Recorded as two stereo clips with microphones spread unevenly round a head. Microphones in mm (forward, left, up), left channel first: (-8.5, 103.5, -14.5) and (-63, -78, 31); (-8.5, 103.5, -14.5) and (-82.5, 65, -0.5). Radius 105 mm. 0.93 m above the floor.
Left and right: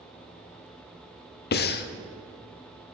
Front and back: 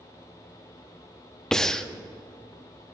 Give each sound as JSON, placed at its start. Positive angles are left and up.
{"t": 1.5, "sound": "breathing", "azimuth_deg": 115, "distance_m": 0.5}